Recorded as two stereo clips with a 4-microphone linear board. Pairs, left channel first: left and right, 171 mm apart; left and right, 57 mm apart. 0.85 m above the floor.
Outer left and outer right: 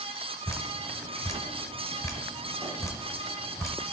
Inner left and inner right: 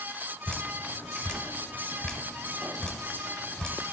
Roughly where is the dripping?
Centre.